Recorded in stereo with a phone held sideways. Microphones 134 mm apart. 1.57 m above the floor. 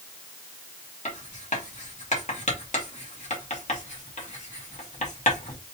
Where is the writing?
65° left (ahead or behind), 1.7 m.